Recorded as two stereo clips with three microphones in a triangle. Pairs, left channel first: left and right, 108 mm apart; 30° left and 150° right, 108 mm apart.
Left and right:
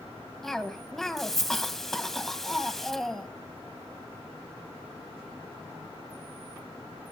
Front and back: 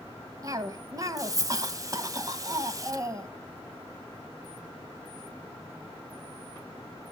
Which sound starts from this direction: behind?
A cough, at 0.4 s.